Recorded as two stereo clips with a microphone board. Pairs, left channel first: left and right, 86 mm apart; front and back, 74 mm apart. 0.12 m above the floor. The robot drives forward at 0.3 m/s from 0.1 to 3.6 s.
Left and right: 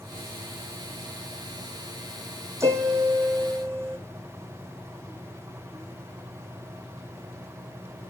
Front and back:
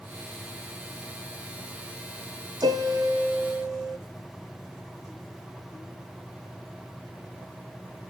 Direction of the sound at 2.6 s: 145° right.